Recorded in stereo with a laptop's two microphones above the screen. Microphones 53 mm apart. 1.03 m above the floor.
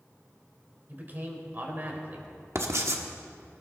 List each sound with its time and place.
0.9 s a man speaking: 35° right (ahead or behind), 4 m
2.5 s writing: 60° right (ahead or behind), 1.4 m